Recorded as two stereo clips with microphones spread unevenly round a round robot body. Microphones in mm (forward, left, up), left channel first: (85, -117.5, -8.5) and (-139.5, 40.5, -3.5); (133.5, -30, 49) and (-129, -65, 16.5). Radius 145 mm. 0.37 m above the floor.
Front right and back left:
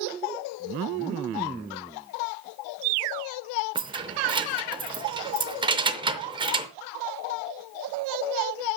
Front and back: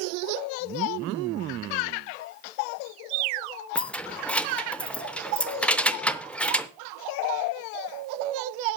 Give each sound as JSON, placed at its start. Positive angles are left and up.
{"t": 3.8, "sound": "keys jangling", "azimuth_deg": 105, "distance_m": 0.6}